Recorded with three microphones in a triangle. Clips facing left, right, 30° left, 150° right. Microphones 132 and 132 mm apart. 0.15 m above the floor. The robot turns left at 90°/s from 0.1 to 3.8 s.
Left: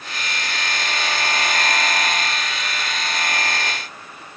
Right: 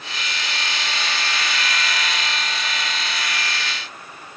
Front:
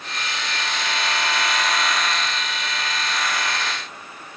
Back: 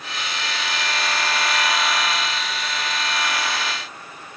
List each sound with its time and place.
Only background noise.